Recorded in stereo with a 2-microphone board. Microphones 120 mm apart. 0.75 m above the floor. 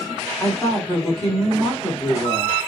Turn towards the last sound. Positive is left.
turn(degrees=0)  # may be behind; listen again after turning